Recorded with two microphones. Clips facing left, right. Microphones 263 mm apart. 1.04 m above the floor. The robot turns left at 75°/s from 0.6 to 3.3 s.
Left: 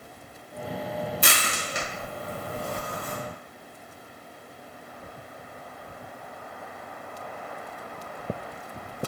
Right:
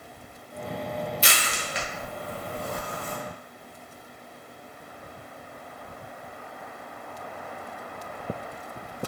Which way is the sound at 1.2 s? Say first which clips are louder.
Left 1 dB; 55° left (ahead or behind).